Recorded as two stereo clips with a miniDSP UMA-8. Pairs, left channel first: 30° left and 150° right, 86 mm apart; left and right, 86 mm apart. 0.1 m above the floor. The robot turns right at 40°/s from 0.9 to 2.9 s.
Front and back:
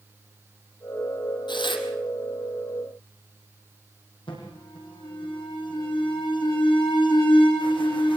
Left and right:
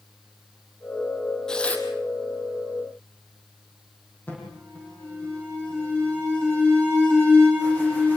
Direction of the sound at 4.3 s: 25° left.